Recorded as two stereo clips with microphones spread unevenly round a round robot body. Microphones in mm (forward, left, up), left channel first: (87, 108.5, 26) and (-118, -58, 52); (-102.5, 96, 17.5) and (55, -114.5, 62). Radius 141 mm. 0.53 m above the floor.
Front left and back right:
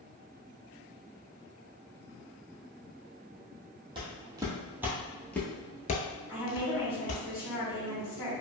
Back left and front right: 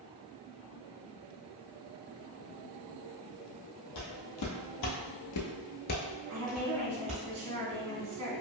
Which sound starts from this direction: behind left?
Footsteps, at 4.0 s.